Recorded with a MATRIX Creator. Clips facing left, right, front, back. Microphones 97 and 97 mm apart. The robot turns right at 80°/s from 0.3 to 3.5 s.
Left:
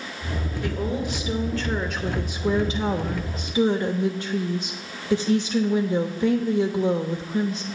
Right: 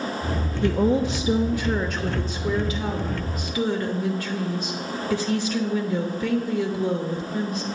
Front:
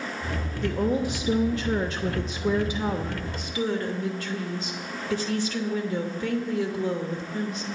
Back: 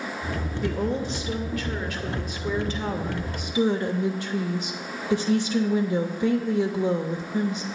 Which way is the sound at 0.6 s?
100° right.